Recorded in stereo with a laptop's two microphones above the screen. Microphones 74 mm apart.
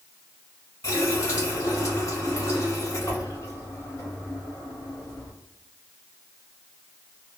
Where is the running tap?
45° left (ahead or behind), 1.2 m.